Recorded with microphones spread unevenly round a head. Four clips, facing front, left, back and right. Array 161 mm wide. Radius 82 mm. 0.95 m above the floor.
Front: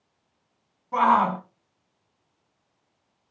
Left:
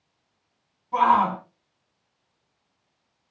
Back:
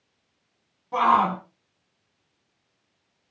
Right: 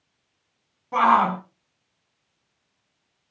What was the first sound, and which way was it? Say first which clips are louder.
A shout: right 1 dB, even; 75° right.